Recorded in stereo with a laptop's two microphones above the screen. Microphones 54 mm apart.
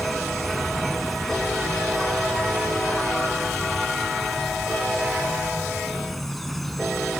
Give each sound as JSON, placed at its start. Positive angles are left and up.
{"t": 0.0, "sound": "an insect", "side_deg": 0}